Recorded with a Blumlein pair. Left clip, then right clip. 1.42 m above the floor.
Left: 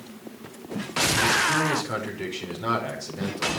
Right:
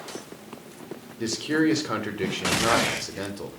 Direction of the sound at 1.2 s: 15° right.